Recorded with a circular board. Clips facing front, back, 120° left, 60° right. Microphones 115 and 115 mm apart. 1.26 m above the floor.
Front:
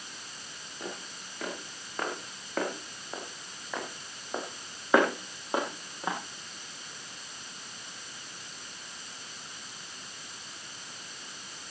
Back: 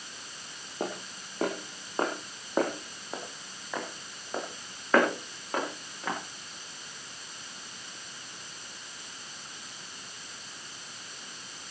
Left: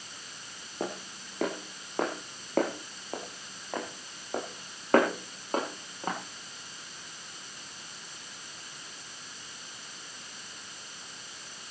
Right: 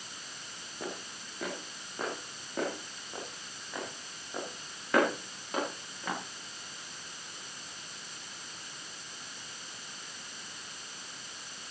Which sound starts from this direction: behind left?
Footsteps, at 0.8 s.